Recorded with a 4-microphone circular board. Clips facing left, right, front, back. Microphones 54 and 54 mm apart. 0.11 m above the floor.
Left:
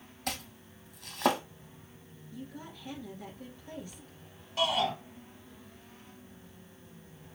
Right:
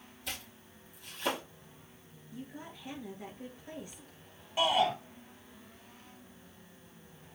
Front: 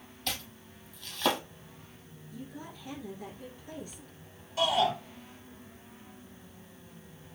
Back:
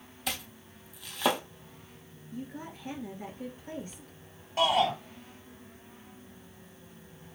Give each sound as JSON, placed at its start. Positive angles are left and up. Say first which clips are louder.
{"t": 0.3, "sound": "chopping", "louder": "left 6 dB, back 1 dB", "azimuth_deg": 100, "distance_m": 1.1}
{"t": 2.3, "sound": "a woman speaking", "louder": "left 1 dB, back 4 dB", "azimuth_deg": -150, "distance_m": 1.4}
{"t": 4.6, "sound": "a shout", "louder": "right 2 dB, back 2 dB", "azimuth_deg": -150, "distance_m": 2.0}